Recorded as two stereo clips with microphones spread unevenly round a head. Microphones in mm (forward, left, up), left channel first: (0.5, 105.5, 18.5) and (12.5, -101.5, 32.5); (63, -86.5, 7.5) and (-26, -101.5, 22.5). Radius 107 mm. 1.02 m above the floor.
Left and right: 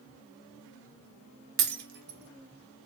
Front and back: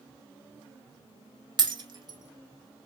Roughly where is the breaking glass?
Behind right.